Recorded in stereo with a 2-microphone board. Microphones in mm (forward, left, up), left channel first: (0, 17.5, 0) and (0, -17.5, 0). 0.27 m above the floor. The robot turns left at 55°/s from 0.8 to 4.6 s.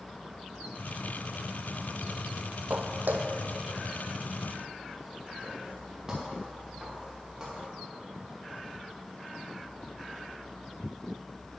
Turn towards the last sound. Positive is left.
turn(degrees=-25)  # may be behind; listen again after turning